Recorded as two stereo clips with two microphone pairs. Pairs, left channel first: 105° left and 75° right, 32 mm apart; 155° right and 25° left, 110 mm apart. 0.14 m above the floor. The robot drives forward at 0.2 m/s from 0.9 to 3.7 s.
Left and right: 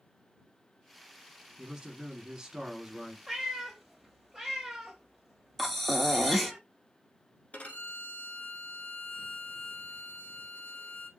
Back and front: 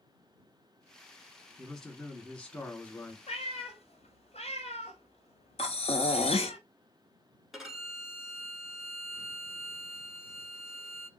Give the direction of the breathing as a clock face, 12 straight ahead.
6 o'clock.